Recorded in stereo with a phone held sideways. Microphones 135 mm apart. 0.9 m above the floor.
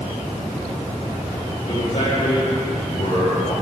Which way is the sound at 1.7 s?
40° left (ahead or behind).